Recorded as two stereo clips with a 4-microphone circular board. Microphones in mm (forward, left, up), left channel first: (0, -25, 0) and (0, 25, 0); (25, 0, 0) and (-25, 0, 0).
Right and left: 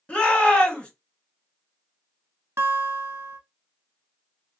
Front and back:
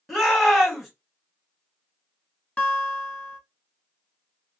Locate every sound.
0.1 s a shout: 105° right, 1.4 m
2.6 s a guitar: 65° left, 0.6 m